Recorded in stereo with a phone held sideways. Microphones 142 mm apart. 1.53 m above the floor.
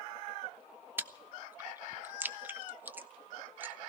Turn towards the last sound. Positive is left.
turn(degrees=-15)  # may be behind; listen again after turning